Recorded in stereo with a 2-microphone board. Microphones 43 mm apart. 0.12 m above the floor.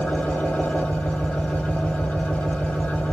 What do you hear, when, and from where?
0.0 s an engine running: 35° left (ahead or behind), 1.4 m